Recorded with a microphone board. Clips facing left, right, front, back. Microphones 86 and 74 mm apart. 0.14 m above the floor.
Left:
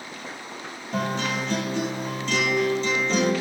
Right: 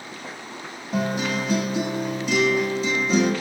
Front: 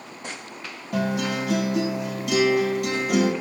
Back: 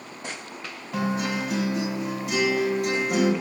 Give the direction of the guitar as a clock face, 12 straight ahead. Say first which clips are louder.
Right 2 dB, front 2 dB; 12 o'clock.